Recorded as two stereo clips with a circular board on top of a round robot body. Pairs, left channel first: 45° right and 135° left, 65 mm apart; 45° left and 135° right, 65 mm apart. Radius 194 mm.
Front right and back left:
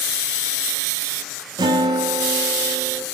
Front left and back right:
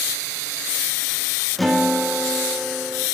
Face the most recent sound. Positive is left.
turn(degrees=135)